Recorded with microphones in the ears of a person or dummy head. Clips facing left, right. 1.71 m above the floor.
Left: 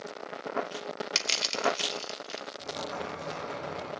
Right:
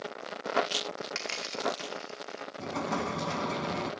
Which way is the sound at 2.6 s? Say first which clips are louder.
Right 5 dB; 85° right.